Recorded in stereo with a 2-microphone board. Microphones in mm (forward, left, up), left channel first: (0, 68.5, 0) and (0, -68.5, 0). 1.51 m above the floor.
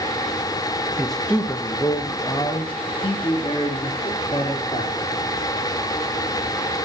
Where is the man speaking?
5° right (ahead or behind), 1.1 m; by 4.9 s 45° left (ahead or behind), 4 m.